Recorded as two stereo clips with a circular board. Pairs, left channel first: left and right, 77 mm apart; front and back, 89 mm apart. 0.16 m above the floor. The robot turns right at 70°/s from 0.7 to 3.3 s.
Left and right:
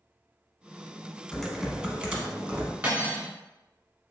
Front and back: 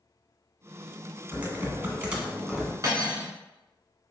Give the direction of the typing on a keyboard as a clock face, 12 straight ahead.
7 o'clock.